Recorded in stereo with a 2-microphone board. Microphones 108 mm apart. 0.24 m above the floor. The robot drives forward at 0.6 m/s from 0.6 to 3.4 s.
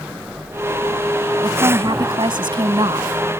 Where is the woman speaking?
50° right (ahead or behind).